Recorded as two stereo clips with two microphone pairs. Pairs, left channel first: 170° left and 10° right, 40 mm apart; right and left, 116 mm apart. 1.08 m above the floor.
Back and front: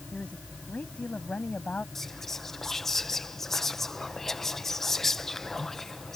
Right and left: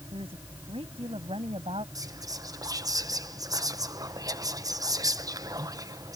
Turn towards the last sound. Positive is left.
turn(degrees=105)